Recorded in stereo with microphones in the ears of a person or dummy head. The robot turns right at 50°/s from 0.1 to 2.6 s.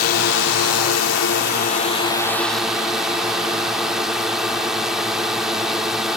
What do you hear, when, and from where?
0.0 s a drone: 55° left; by 6.2 s straight behind